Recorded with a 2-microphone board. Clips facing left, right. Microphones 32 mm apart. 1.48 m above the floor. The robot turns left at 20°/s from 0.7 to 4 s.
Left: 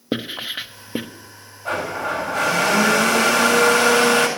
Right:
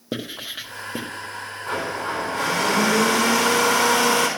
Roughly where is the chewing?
No chewing in this recording.